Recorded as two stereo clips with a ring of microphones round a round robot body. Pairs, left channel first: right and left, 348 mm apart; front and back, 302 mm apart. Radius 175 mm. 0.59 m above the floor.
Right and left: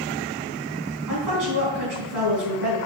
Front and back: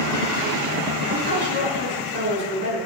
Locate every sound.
1.1 s a woman speaking: 125° left, 4.5 m